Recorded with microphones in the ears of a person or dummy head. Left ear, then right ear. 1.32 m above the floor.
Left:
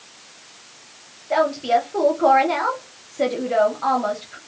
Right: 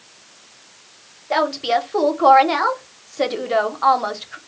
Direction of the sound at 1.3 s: 25° right (ahead or behind).